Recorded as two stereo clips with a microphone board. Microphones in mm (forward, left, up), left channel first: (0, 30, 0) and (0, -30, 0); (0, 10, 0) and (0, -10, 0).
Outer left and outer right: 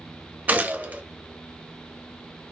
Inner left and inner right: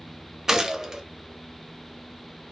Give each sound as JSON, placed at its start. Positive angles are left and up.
{"t": 0.5, "sound": "a gunshot", "side_deg": -30, "distance_m": 0.8}